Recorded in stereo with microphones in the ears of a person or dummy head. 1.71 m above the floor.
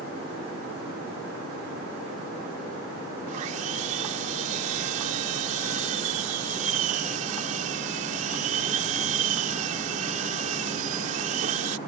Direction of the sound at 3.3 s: 35° right (ahead or behind).